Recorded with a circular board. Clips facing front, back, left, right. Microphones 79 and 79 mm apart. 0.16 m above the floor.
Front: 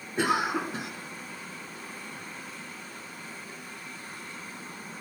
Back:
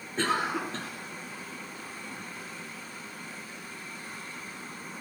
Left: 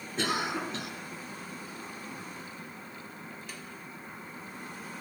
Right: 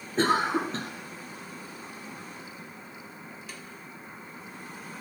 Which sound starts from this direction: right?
A cough, at 0.2 s.